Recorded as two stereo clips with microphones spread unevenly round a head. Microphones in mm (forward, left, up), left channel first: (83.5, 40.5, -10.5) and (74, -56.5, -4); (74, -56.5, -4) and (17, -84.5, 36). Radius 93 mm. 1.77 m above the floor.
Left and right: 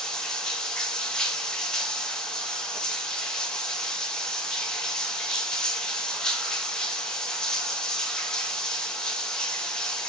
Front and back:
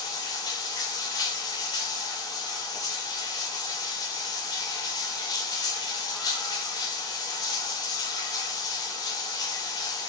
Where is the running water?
Straight ahead, 0.7 m.